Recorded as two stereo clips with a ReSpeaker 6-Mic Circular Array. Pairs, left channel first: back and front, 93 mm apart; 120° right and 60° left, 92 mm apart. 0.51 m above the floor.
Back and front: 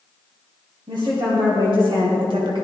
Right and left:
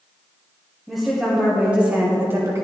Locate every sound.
0.9 s a woman speaking: 30° right, 2.5 m; by 2.6 s 10° left, 1.6 m